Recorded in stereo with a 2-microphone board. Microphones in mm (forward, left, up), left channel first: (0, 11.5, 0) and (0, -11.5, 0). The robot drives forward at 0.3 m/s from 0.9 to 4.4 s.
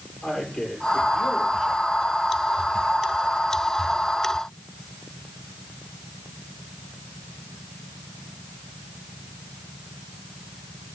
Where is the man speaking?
35° left (ahead or behind), 7.5 m.